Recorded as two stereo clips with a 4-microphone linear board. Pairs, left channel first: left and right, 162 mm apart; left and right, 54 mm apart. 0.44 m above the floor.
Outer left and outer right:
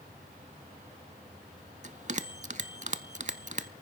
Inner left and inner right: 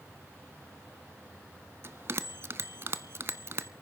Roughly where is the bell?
Right.